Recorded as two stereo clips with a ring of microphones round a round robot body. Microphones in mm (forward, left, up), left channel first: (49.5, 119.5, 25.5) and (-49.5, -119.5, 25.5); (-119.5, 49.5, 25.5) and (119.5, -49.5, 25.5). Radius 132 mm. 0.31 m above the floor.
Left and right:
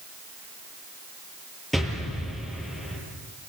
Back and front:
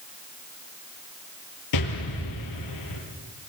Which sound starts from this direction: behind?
An explosion, at 1.7 s.